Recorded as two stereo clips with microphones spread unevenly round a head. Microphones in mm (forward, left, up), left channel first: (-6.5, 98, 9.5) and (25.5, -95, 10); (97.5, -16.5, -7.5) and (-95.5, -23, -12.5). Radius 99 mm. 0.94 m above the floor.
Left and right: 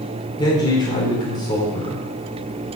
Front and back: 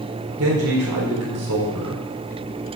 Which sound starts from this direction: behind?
A man speaking, at 0.4 s.